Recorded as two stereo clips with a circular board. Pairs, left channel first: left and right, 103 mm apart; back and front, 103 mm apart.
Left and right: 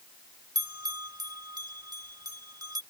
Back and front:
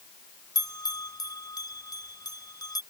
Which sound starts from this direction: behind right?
A bell, at 0.6 s.